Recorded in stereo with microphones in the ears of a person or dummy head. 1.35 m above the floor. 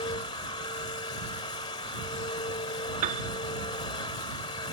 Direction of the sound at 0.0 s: 25° left (ahead or behind).